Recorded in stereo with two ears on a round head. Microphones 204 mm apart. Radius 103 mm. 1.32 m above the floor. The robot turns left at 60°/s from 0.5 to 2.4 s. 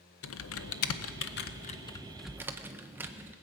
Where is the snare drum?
I don't hear a snare drum.